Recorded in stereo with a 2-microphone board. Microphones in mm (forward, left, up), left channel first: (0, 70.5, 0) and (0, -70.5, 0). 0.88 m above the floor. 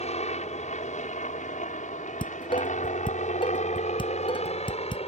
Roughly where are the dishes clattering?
Left.